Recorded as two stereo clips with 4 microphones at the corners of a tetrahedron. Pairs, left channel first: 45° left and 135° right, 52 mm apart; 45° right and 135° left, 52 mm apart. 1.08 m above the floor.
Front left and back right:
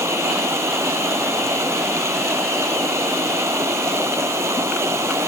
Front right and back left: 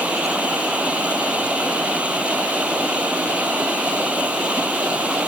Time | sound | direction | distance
0.0 | running water | 160° right | ?